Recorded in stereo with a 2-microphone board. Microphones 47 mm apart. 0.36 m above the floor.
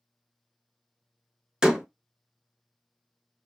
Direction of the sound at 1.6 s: 20° right (ahead or behind).